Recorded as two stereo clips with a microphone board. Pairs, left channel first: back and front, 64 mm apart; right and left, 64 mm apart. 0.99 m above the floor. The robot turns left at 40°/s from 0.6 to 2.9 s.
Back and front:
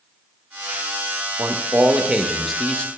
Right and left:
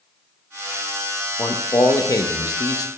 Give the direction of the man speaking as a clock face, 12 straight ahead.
2 o'clock.